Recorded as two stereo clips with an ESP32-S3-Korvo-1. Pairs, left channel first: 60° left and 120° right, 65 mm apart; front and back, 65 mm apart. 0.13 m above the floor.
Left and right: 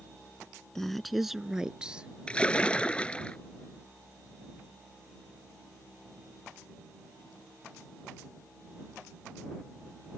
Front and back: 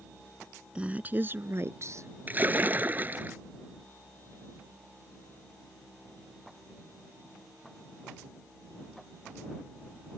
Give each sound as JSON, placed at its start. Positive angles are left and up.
{"t": 0.8, "sound": "a woman speaking", "azimuth_deg": 135}
{"t": 2.3, "sound": "a splash", "azimuth_deg": 130}